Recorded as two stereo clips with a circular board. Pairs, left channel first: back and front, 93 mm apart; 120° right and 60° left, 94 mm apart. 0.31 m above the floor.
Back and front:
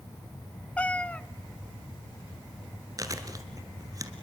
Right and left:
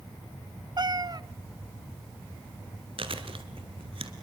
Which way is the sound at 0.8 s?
105° left.